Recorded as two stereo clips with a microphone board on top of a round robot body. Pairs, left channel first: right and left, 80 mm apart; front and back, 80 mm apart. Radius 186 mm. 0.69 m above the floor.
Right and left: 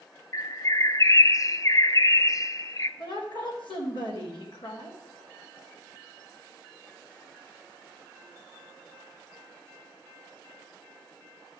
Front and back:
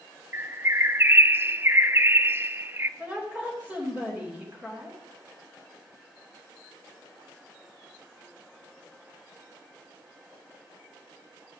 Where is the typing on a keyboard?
No typing on a keyboard in this recording.